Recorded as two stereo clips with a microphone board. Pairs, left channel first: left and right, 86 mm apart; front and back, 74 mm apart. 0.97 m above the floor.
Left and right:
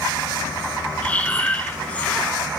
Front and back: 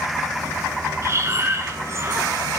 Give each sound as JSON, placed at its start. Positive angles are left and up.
{"t": 1.0, "sound": "breathing", "azimuth_deg": 155, "distance_m": 0.9}